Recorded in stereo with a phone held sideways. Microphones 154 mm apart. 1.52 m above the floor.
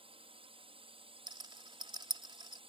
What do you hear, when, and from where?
0.0 s a drone: 35° right (ahead or behind)
1.3 s a rattle: 30° right (ahead or behind)